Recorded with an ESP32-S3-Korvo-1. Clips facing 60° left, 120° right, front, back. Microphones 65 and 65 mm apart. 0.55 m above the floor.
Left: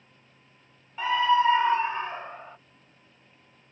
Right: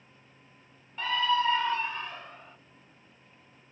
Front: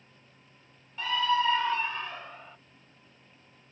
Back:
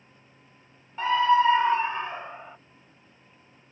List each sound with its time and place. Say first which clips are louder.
1.0 s a scream: left 5 dB, back 7 dB; 130° left; by 2.6 s 115° left